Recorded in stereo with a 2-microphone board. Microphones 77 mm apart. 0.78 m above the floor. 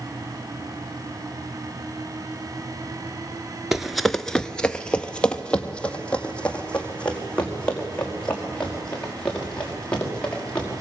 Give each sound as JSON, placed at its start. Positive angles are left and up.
{"t": 3.7, "sound": "running footsteps", "side_deg": -5, "distance_m": 0.8}